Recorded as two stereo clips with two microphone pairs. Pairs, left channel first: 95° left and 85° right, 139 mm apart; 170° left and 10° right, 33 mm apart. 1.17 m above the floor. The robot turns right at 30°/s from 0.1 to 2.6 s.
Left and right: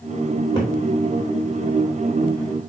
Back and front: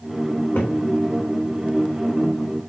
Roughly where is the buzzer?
I don't hear a buzzer.